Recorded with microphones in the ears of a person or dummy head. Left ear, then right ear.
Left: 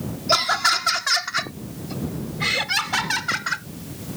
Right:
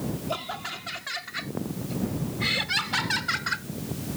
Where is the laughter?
65° left (ahead or behind); by 3.6 s 20° left (ahead or behind).